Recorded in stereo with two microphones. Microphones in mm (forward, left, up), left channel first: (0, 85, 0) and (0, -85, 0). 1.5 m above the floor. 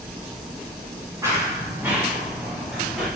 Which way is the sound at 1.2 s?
20° right (ahead or behind).